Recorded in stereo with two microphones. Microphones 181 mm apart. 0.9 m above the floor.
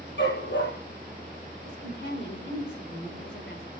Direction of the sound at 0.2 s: 85° left.